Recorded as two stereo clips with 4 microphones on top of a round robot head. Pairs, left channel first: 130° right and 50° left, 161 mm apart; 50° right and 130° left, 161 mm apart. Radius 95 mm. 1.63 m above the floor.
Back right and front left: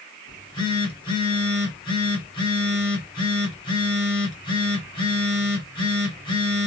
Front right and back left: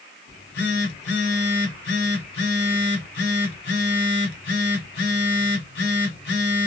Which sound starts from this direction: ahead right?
A phone buzzing, at 0.3 s.